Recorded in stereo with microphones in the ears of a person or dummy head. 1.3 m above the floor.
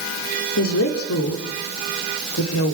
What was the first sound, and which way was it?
A woman speaking, 80° left.